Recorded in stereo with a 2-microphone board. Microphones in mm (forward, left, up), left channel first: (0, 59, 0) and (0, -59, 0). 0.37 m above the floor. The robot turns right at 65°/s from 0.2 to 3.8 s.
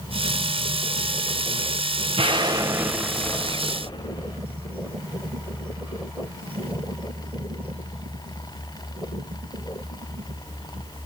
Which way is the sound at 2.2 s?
65° right.